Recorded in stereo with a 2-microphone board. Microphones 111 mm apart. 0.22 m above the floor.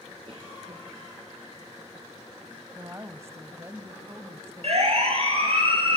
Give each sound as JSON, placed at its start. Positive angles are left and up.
{"t": 0.3, "sound": "a cough", "side_deg": -50, "distance_m": 3.5}
{"t": 2.8, "sound": "a woman speaking", "side_deg": -25, "distance_m": 1.0}
{"t": 4.6, "sound": "a siren", "side_deg": -60, "distance_m": 6.0}